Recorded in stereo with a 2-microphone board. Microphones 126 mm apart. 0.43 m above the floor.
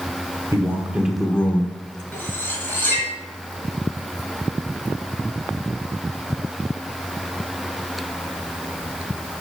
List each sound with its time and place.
0.5 s a man speaking: 25° right (ahead or behind), 1.3 m; by 2.0 s 30° left (ahead or behind), 1.4 m
2.1 s cutlery clinking: 15° left (ahead or behind), 3 m